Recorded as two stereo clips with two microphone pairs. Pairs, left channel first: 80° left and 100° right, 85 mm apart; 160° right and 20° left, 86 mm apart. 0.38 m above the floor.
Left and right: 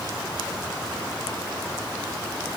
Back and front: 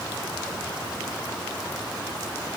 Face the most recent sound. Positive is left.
No sound to turn to.